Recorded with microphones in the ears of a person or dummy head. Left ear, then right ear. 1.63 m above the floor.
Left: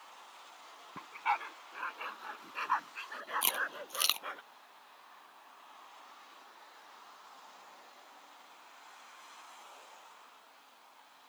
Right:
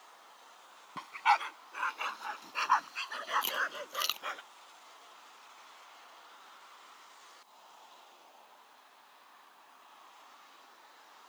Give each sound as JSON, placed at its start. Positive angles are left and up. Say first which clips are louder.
{"t": 1.0, "sound": "a dog barking", "louder": "right 6 dB", "side_deg": -35}
{"t": 3.4, "sound": "chewing", "louder": "right 1 dB", "side_deg": 15}